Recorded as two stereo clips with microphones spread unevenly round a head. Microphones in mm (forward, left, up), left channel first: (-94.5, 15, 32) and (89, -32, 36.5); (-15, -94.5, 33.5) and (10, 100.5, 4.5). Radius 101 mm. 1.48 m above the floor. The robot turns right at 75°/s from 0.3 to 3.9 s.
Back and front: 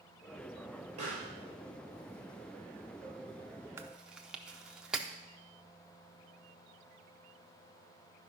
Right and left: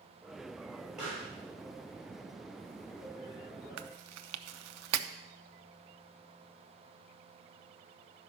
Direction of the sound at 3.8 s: 60° left.